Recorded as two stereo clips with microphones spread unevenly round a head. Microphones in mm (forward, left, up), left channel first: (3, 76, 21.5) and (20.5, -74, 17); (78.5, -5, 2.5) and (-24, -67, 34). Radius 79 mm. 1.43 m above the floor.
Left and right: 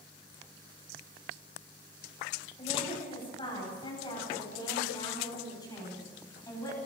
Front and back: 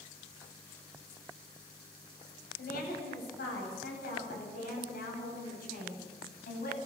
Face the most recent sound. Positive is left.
turn(degrees=25)